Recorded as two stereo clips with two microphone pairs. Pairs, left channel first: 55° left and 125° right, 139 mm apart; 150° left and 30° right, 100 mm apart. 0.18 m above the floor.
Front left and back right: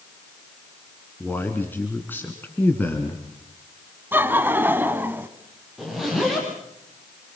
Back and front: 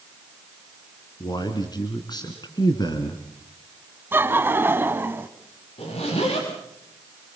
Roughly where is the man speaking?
Behind left.